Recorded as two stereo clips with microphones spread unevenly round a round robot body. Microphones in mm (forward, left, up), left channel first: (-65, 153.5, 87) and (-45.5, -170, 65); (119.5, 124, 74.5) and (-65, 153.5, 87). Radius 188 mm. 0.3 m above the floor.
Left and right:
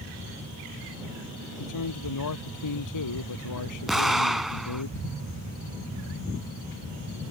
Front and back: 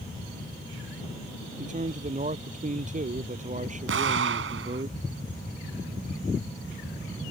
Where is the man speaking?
120° left.